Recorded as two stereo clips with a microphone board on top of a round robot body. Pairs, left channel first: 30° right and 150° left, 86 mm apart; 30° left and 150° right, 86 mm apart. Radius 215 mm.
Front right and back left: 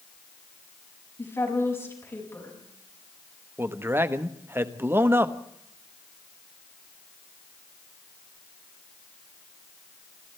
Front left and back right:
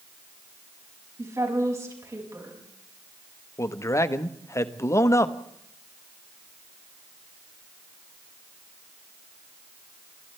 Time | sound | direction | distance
1.2 | a woman speaking | 90° right | 7 m
3.6 | a man speaking | 85° left | 1.4 m